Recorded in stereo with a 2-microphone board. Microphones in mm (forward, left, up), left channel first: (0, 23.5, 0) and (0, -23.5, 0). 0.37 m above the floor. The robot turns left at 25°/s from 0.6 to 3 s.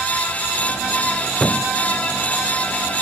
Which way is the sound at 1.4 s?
20° left (ahead or behind).